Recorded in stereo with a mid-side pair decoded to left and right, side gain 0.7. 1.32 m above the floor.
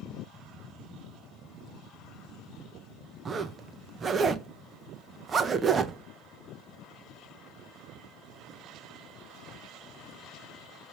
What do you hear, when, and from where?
3.2 s a zipper: 30° right, 0.7 m